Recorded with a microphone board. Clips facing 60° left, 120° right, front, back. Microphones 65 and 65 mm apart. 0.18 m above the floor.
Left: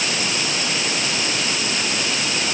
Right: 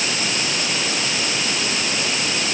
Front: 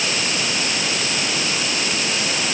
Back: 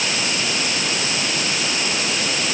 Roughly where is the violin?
I don't hear a violin.